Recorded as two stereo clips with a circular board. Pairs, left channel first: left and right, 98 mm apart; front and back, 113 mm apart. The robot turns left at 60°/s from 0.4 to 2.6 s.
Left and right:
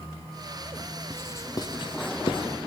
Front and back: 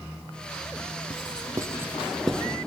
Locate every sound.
1.1 s writing: 155° left, 0.8 m; by 2.5 s 75° left, 0.8 m